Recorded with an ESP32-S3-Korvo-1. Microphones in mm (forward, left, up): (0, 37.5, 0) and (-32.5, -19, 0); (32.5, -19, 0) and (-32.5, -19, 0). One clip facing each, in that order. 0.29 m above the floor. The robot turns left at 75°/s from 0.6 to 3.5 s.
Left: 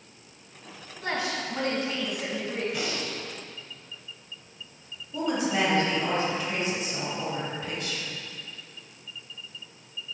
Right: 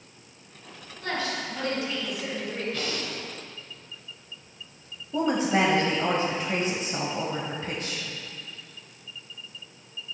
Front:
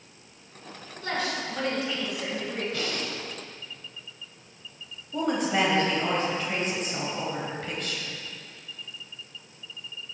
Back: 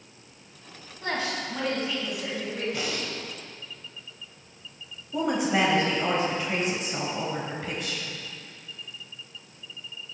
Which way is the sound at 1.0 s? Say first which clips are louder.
Even, even; 140° left.